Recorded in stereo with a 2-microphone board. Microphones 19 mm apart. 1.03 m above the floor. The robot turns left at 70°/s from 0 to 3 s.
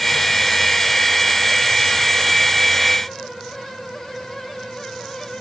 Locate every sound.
Only background noise.